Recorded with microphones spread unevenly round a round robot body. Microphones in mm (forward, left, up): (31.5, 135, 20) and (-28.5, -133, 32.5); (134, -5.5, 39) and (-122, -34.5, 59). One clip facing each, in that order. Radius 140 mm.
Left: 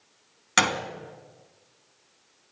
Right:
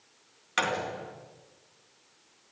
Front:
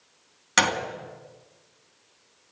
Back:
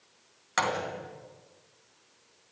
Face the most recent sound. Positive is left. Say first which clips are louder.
# left 3 dB, front 4 dB
turn(degrees=55)